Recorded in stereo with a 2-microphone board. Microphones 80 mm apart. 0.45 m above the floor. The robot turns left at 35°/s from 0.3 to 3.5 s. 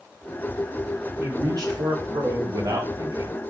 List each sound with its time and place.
1.2 s a man speaking: 55° right, 3 m; by 3.4 s 130° right, 3 m